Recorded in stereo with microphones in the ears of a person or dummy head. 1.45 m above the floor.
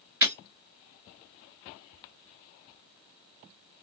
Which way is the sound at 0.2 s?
10° right (ahead or behind).